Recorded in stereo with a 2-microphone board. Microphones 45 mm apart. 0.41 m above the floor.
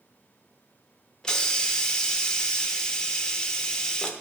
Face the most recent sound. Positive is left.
turn(degrees=15)  # may be behind; listen again after turning